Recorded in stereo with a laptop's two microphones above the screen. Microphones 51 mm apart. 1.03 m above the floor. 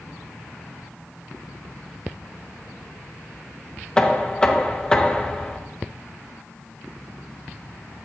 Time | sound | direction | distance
4.0 | knocking | 15° left (ahead or behind) | 0.7 m